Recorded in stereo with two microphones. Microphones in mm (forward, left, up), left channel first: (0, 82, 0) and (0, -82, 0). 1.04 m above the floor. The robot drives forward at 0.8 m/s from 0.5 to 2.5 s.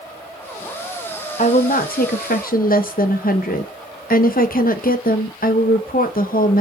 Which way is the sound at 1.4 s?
50° left (ahead or behind).